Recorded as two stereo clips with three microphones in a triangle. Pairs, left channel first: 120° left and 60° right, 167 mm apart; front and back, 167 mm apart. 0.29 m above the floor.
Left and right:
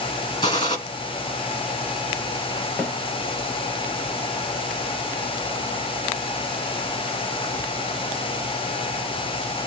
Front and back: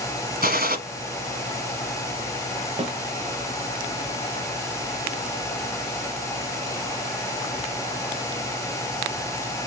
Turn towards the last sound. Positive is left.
turn(degrees=-170)